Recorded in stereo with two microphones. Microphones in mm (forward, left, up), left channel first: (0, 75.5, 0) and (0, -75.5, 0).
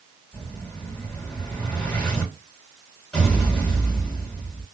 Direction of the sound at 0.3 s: 10° left (ahead or behind).